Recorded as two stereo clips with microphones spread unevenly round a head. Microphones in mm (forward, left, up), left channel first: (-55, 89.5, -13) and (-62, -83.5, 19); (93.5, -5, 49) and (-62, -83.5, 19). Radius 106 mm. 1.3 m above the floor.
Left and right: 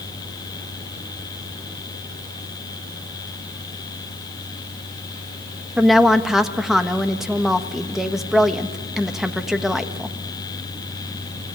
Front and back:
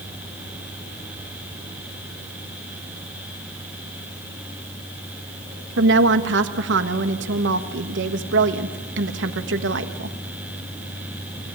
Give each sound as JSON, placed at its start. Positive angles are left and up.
{"t": 5.8, "sound": "a woman speaking", "azimuth_deg": 180, "distance_m": 1.4}